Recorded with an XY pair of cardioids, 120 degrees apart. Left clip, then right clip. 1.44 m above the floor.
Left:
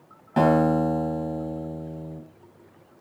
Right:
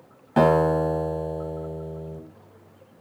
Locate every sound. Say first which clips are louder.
0.4 s a guitar: right 1 dB; 5° right, 1.4 m